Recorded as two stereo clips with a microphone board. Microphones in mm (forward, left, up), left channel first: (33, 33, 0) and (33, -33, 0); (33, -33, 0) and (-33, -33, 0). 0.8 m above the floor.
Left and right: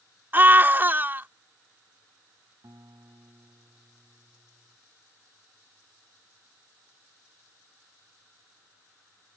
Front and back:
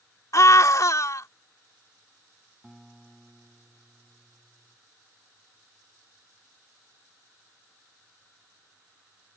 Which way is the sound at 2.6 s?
95° right.